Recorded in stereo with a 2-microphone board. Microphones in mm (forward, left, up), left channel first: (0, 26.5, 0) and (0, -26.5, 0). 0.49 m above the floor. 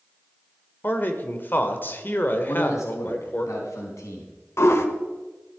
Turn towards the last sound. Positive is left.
turn(degrees=55)  # may be behind; listen again after turning